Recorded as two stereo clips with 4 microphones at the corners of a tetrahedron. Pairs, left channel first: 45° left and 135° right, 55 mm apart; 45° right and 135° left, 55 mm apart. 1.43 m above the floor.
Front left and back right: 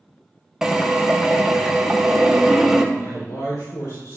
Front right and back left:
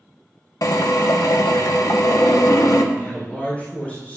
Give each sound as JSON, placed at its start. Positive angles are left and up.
{"t": 0.6, "sound": "a drill", "azimuth_deg": -55, "distance_m": 1.2}
{"t": 2.9, "sound": "a man speaking", "azimuth_deg": 20, "distance_m": 4.0}